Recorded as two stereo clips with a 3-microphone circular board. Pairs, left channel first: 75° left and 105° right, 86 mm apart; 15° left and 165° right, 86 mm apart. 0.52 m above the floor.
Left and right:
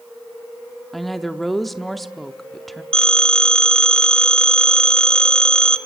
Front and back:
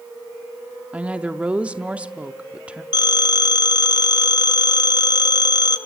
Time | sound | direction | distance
0.9 | a woman speaking | 160° left | 0.7 m
2.9 | a phone ringing | 5° right | 1.1 m